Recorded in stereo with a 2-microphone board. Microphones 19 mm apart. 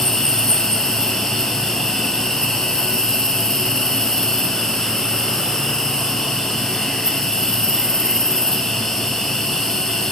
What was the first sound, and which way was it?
An insect, 40° left (ahead or behind).